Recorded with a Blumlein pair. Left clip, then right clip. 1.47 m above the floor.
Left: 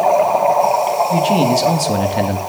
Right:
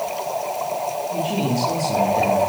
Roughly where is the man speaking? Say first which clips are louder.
Left 9 dB; ahead left.